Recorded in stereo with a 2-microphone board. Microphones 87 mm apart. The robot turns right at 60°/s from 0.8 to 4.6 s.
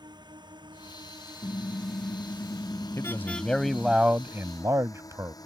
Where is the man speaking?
135° left; by 5.3 s 130° right.